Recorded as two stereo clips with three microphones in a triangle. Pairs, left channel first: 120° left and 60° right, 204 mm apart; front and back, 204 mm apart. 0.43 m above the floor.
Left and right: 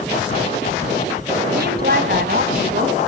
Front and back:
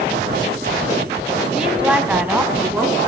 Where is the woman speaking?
95° right, 3 m; by 3.0 s 100° right, 4.5 m.